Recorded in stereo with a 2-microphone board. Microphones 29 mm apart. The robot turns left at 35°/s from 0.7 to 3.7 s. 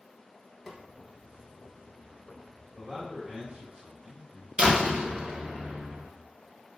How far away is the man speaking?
About 1.6 m.